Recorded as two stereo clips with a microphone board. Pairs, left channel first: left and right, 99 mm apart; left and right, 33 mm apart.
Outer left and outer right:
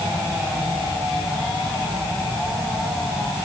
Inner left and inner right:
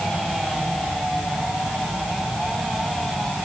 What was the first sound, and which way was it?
Only background noise.